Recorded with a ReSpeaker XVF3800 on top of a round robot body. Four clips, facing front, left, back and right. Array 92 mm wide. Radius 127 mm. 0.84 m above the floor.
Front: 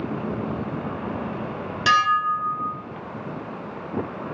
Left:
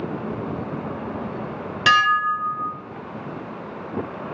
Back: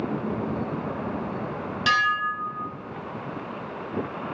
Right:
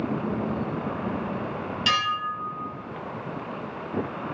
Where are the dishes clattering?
75° left, 1.9 m.